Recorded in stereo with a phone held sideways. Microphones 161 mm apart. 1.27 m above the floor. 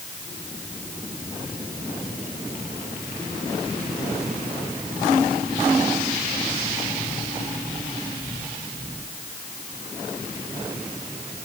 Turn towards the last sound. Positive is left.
No sound to turn to.